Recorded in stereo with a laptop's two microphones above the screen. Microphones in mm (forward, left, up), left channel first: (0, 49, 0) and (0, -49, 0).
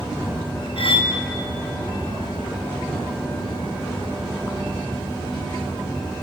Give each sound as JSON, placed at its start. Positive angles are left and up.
{"t": 0.8, "sound": "cutlery clinking", "side_deg": 65, "distance_m": 0.8}